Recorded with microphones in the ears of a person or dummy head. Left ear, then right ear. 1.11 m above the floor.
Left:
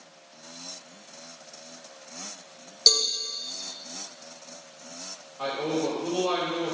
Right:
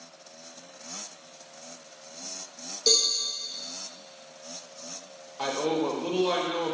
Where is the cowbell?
70° left (ahead or behind), 1.4 m.